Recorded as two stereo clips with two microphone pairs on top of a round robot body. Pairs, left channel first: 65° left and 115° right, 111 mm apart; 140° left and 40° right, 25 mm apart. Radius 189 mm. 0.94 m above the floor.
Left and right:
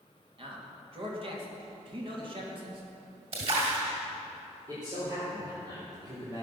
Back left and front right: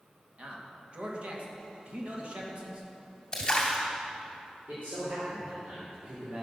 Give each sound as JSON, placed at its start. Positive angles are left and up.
{"t": 0.4, "sound": "a man speaking", "azimuth_deg": -75, "distance_m": 2.5}
{"t": 3.3, "sound": "a splash", "azimuth_deg": -150, "distance_m": 2.0}
{"t": 4.7, "sound": "a man speaking", "azimuth_deg": -60, "distance_m": 4.0}